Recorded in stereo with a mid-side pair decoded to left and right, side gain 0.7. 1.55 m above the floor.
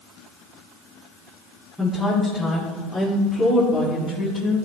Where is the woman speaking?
10° left, 4.5 m; by 4.7 s 50° left, 4.5 m.